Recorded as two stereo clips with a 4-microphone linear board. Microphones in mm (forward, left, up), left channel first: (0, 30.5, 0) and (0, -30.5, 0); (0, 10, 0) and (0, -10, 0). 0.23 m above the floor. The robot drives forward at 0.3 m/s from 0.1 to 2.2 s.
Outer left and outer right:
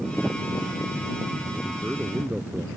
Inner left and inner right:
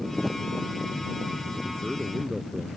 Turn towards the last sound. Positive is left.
turn(degrees=-25)  # may be behind; listen again after turning